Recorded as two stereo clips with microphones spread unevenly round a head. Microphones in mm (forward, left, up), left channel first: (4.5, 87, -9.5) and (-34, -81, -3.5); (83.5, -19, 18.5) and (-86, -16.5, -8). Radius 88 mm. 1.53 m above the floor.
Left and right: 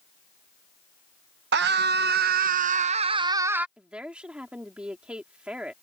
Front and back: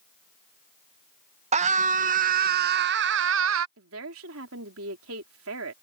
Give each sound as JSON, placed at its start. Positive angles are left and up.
{"t": 1.5, "sound": "a scream", "azimuth_deg": -130}
{"t": 3.8, "sound": "a woman speaking", "azimuth_deg": 175}